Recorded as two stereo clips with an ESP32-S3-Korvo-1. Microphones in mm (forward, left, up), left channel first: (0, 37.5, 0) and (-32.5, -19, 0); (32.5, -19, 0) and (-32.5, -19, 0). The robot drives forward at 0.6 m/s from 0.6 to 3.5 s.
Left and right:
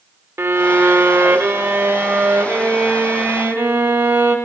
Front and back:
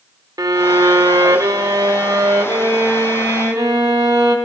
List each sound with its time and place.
0.4 s a violin: 170° right, 1.0 m; by 4.3 s 175° right, 2.5 m